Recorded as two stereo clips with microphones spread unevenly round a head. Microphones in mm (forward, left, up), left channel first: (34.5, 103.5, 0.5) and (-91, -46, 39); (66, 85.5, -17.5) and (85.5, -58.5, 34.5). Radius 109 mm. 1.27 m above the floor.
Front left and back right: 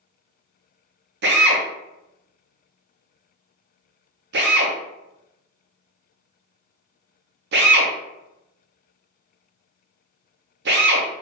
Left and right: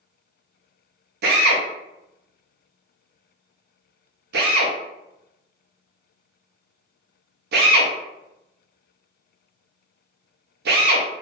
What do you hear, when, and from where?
1.2 s a drill: 100° right, 0.6 m